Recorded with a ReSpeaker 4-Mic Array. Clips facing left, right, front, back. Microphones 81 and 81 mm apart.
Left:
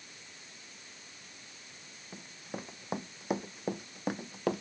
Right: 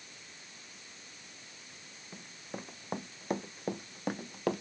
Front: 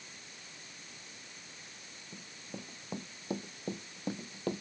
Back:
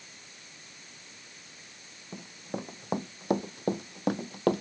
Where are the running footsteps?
175° left; by 4.6 s straight behind.